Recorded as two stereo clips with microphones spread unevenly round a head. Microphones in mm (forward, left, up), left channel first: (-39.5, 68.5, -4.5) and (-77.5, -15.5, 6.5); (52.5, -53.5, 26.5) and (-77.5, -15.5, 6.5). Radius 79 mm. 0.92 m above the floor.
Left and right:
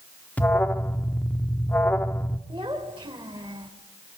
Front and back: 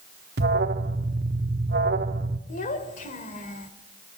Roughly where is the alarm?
Behind left.